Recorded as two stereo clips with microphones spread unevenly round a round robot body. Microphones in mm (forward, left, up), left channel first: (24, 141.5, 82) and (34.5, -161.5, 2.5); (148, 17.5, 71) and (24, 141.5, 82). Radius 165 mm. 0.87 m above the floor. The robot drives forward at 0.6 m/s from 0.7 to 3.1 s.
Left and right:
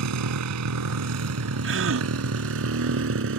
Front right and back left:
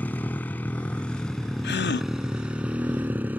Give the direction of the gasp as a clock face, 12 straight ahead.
1 o'clock.